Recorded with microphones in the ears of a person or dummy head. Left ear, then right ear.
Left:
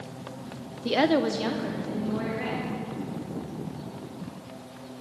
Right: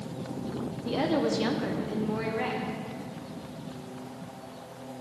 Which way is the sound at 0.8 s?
65° left (ahead or behind).